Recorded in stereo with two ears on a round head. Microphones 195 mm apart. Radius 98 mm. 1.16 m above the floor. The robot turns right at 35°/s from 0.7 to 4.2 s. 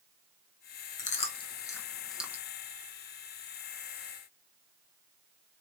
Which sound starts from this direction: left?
Chewing, at 1.0 s.